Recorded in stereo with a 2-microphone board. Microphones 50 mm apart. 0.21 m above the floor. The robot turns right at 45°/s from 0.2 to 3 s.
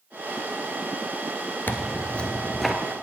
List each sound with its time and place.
1.7 s tearing paper: 135° left, 1.0 m; by 2.8 s 175° right, 1.0 m